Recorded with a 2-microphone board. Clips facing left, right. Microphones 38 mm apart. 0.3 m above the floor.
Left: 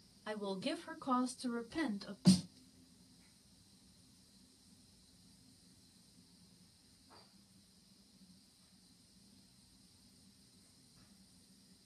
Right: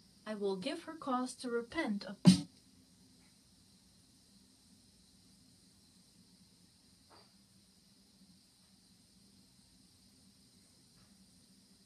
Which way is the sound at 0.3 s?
10° left (ahead or behind).